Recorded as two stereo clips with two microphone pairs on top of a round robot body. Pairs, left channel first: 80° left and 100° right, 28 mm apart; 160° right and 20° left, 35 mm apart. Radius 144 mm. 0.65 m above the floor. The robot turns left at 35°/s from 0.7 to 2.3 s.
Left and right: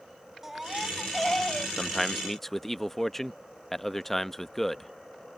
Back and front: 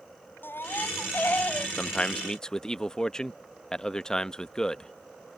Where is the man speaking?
165° left; by 4.9 s 145° left.